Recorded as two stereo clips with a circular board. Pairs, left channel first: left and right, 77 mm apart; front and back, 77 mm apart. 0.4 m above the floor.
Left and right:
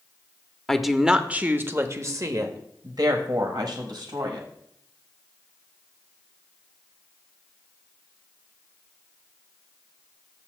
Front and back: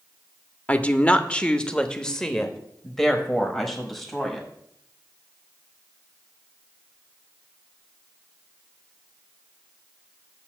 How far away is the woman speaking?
About 0.8 m.